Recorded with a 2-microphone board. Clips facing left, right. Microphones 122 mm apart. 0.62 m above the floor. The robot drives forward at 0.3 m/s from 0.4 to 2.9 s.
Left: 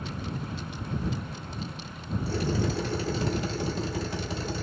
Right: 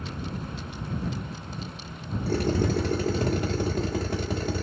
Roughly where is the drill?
Right.